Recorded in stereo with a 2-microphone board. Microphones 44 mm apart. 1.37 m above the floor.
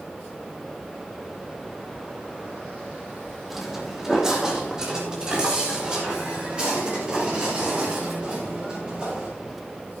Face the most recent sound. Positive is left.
turn(degrees=-25)  # may be behind; listen again after turning